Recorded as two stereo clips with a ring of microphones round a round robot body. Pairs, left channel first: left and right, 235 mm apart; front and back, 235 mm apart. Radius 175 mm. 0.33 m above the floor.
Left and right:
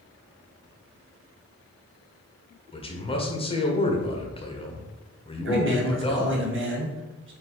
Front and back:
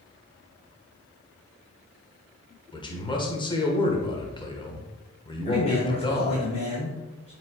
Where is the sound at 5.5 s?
65° right, 2.5 m.